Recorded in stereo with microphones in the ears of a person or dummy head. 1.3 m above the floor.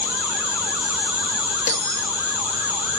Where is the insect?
10° right (ahead or behind), 6.5 m.